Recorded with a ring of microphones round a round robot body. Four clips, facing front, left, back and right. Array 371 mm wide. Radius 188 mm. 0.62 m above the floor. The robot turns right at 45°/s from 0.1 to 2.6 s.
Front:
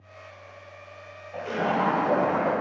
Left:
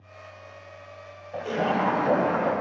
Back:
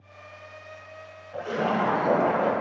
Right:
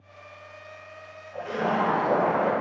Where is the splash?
105° left, 2.5 m; by 2.5 s 160° left, 2.5 m.